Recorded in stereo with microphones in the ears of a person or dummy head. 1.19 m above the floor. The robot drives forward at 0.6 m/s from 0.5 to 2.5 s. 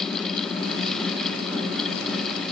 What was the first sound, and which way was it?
Only background noise.